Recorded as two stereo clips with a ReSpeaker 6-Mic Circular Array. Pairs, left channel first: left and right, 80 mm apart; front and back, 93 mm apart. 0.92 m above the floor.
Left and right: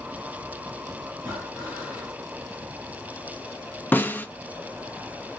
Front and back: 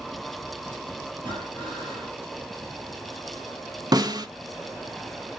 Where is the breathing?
165° right, 2 m.